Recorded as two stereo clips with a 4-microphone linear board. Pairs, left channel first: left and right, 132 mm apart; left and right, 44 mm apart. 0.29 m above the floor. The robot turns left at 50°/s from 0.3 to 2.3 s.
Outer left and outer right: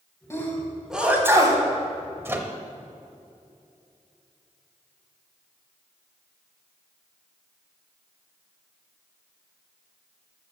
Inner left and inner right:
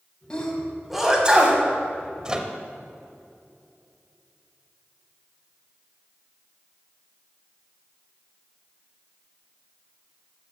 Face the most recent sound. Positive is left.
turn(degrees=-20)  # may be behind; listen again after turning